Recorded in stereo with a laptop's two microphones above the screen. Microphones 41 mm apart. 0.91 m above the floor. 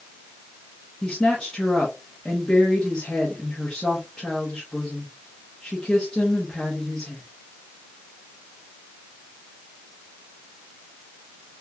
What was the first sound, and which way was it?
A woman speaking, 15° left (ahead or behind).